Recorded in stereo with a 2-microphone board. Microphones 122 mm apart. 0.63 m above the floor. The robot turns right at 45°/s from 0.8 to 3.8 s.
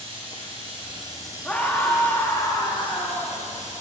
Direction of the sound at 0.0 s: 45° right.